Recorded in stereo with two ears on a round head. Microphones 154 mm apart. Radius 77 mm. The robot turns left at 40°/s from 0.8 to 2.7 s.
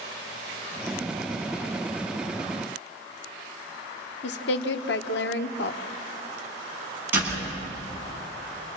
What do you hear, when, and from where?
4.2 s a woman speaking: 70° left (ahead or behind), 1.3 m
7.1 s a door slam: 10° right (ahead or behind), 9.5 m